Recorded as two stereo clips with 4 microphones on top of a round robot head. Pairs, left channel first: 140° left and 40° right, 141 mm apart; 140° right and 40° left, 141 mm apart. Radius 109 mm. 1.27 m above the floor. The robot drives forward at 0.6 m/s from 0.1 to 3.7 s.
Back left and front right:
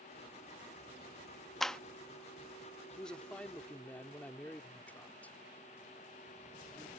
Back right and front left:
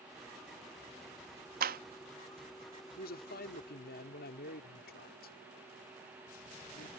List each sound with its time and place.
1.6 s a clap: 55° left; by 1.8 s 60° left
3.0 s a man speaking: 130° right; by 6.9 s 135° right